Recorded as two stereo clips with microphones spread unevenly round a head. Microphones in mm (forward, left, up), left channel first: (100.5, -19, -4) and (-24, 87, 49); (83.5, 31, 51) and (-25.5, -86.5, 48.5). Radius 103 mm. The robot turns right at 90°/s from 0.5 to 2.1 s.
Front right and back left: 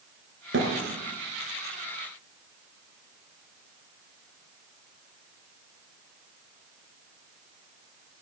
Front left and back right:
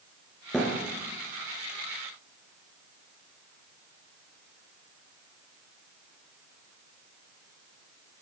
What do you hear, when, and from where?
0.5 s a thud: 135° left, 5 m; by 0.7 s 155° left, 5 m